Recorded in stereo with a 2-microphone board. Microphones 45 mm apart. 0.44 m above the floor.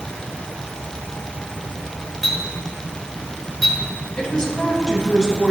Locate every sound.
2.2 s a clink: 5° left (ahead or behind), 3.5 m
4.2 s a woman speaking: 15° left (ahead or behind), 3 m